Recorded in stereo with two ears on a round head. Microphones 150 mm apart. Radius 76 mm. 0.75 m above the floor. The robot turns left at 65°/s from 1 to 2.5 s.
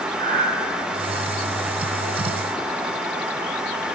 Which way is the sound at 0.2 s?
50° right (ahead or behind).